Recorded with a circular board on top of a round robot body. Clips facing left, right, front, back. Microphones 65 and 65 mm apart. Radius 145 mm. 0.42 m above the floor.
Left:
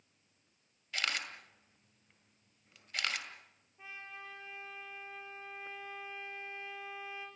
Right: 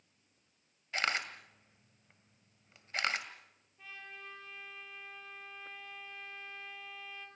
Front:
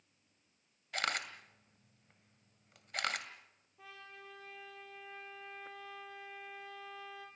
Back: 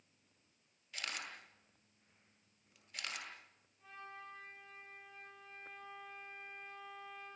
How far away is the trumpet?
About 5.5 m.